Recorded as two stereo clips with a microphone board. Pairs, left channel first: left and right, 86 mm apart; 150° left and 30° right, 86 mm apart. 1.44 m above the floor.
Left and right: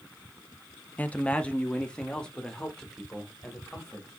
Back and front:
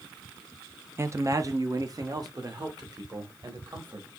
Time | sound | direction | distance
1.0 | a man speaking | 20° left | 0.5 m